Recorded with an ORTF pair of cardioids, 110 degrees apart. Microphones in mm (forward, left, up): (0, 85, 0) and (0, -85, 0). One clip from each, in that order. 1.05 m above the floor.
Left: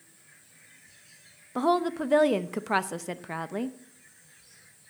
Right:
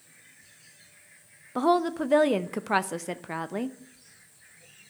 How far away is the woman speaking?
About 0.5 m.